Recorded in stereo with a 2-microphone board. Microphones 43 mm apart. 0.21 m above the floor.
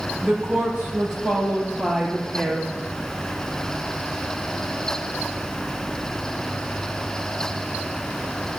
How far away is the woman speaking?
About 3.5 m.